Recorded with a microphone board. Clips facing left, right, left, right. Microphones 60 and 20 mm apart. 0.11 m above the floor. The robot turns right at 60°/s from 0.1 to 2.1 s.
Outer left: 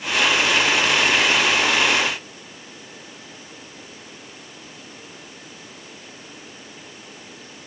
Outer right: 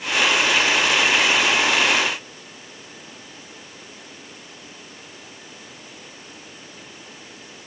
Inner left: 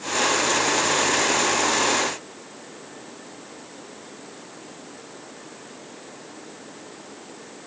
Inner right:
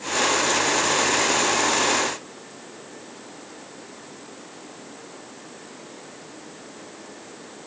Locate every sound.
Only background noise.